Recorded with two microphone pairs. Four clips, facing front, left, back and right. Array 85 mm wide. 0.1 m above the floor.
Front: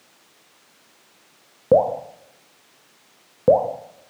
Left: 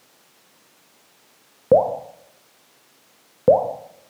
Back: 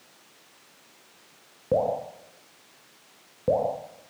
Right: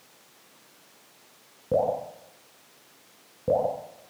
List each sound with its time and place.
1.7 s dripping: 55° left, 4 m